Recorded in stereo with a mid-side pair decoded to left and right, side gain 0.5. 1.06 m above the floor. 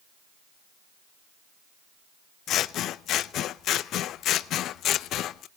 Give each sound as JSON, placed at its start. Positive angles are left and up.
{"t": 2.5, "sound": "scissors", "azimuth_deg": 65, "distance_m": 0.5}